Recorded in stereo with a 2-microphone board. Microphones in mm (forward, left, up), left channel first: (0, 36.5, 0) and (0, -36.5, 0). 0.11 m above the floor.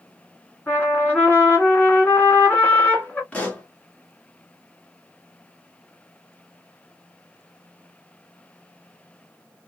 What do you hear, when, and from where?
0.7 s a trumpet: 25° left (ahead or behind), 1.5 m
3.3 s a pop: 20° left (ahead or behind), 1.2 m